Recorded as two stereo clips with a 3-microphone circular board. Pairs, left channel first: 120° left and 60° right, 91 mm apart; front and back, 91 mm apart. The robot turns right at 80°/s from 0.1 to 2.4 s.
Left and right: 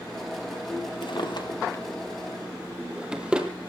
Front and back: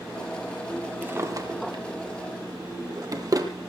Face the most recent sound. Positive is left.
turn(degrees=-140)